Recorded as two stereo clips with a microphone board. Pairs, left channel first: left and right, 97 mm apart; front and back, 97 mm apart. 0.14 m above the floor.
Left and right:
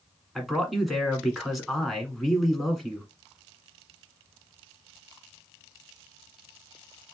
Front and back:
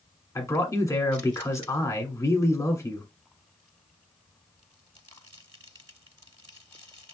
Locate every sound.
0.3 s a man speaking: straight ahead, 1.3 m